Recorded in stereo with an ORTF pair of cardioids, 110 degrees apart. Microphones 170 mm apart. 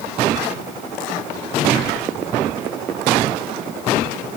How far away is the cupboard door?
I don't hear a cupboard door.